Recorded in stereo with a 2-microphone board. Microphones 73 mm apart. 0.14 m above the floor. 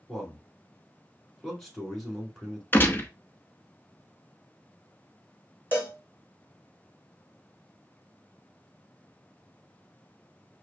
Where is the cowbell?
25° left (ahead or behind), 1.5 m.